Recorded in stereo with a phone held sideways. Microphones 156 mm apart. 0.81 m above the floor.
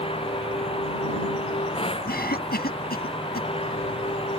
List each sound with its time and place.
0.0 s a machine running: 35° left (ahead or behind)
2.1 s a cough: 80° left